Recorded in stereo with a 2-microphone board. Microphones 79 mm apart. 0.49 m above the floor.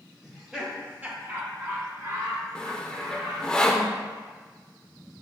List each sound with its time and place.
0.2 s laughter: centre (ahead or behind), 1.1 m; by 3.5 s 50° right (ahead or behind), 3 m
2.5 s sawing: 10° left (ahead or behind), 0.5 m